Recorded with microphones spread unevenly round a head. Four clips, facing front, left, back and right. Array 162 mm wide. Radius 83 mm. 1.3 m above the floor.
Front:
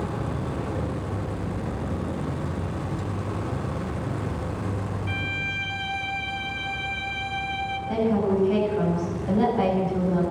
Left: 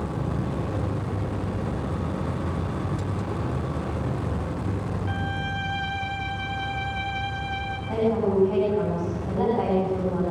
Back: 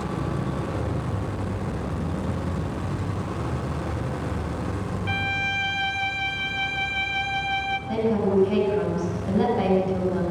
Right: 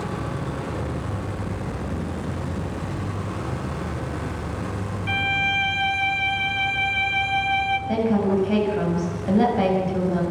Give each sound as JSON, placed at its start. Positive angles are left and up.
{"t": 5.1, "sound": "a violin", "azimuth_deg": -105, "distance_m": 1.3}
{"t": 7.9, "sound": "a woman speaking", "azimuth_deg": -85, "distance_m": 7.5}